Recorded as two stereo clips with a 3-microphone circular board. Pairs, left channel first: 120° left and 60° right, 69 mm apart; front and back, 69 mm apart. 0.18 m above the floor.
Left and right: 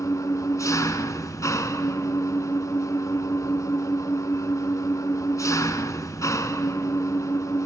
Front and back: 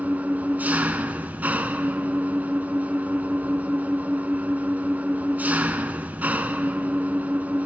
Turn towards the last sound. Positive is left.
turn(degrees=125)